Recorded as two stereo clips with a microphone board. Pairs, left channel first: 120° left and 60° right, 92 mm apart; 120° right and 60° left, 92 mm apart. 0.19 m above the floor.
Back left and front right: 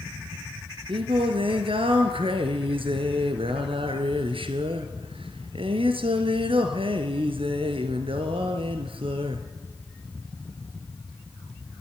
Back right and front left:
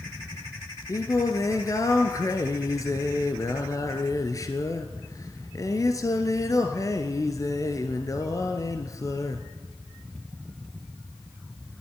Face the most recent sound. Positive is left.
turn(degrees=-70)